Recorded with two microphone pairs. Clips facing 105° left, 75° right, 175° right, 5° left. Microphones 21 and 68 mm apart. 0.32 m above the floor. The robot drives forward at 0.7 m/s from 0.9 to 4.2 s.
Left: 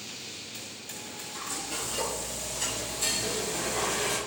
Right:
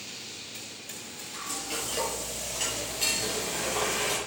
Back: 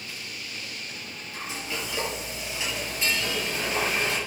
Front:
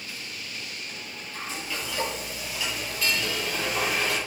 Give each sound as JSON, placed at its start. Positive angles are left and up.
{"t": 1.3, "sound": "frying", "azimuth_deg": -105, "distance_m": 7.5}